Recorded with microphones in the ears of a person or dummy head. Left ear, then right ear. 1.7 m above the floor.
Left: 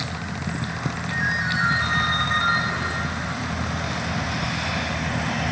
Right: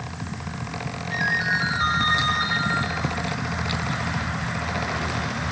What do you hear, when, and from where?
1.1 s a ringtone: 10° right (ahead or behind), 1.6 m